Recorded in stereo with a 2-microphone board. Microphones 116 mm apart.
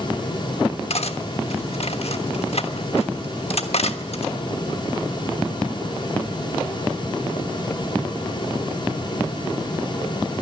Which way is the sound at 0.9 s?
65° left (ahead or behind).